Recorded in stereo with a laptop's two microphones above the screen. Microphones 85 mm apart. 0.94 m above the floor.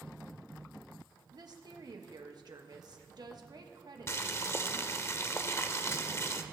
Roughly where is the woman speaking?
Right.